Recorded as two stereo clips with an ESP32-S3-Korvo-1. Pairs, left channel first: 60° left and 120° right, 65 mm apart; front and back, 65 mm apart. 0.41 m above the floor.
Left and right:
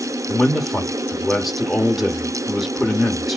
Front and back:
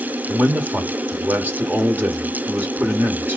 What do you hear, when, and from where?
0.3 s a man speaking: 145° left, 1.0 m